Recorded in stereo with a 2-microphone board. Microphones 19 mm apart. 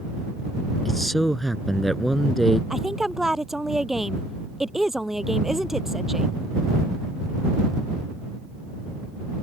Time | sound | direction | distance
0.8 | a man speaking | 10° left (ahead or behind) | ?
2.7 | a woman speaking | 15° right (ahead or behind) | ?